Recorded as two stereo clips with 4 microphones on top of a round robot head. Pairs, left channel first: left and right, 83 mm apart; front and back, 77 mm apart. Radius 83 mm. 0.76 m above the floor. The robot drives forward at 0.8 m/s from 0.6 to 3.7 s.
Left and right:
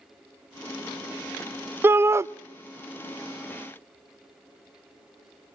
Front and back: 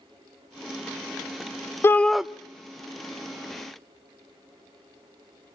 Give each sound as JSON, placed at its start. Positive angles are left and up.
{"t": 1.8, "sound": "a shout", "azimuth_deg": -40, "distance_m": 0.5}